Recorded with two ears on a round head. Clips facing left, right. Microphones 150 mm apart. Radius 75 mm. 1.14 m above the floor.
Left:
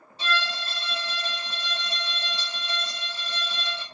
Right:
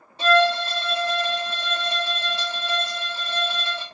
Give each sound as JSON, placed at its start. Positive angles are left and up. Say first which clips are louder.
{"t": 0.2, "sound": "a violin", "louder": "right 13 dB", "side_deg": -45, "distance_m": 0.9}